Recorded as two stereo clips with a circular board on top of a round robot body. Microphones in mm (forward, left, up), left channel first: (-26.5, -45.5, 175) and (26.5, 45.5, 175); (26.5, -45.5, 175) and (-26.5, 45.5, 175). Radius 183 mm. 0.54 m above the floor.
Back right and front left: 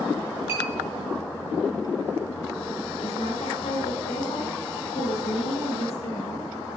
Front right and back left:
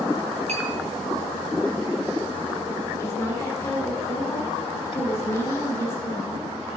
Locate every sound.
0.5 s a clink: 125° left, 3.5 m
3.0 s a woman speaking: 125° right, 1.9 m